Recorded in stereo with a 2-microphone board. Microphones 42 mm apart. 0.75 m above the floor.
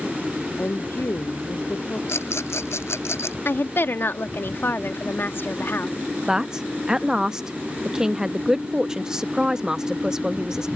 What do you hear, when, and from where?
0.6 s a woman speaking: 55° left (ahead or behind)
2.1 s a rattle: 85° left
3.5 s a woman speaking: 60° left (ahead or behind)
6.3 s a man speaking: 10° right (ahead or behind)